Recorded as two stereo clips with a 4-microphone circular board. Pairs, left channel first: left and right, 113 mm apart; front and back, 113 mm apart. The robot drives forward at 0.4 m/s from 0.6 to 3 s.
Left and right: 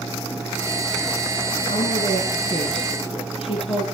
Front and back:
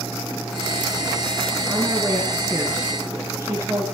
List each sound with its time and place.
1.7 s a woman speaking: 105° left, 4 m; by 3.9 s 115° left, 4 m